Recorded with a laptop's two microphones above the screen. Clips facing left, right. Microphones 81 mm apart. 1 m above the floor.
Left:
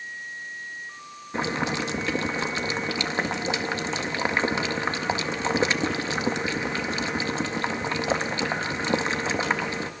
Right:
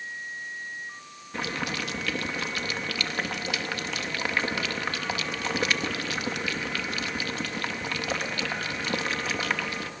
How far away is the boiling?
About 0.7 m.